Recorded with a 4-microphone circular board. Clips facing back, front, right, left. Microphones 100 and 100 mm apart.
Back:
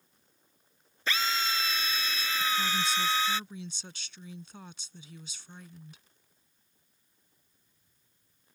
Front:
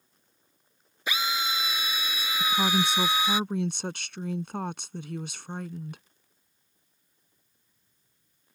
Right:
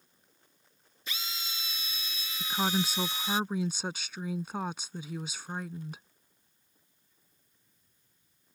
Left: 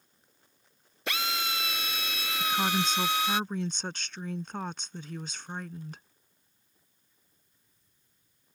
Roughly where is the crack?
No crack in this recording.